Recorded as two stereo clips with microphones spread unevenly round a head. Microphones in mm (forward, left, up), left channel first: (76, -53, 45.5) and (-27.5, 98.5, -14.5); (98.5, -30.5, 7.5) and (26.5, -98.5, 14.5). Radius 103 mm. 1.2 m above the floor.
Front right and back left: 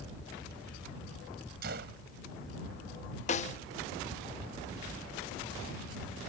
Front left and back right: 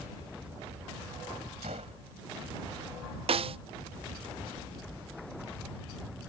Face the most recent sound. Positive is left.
turn(degrees=-115)